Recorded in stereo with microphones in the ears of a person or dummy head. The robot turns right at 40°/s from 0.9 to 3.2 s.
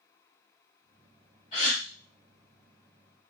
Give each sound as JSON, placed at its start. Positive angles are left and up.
{"t": 1.5, "sound": "a gasp", "side_deg": 30, "distance_m": 1.5}